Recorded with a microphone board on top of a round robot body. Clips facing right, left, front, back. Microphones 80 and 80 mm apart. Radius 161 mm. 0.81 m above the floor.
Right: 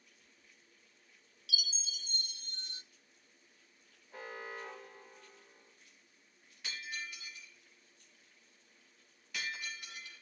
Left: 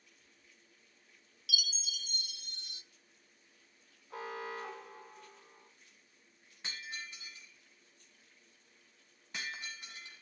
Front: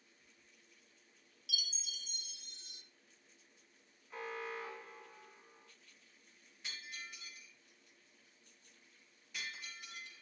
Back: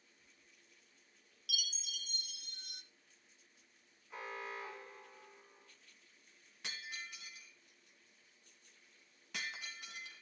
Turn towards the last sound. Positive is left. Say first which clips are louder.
# right 1 dB, back 2 dB
turn(degrees=150)